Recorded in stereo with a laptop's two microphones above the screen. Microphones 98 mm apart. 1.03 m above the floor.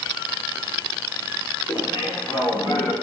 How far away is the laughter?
About 2.5 m.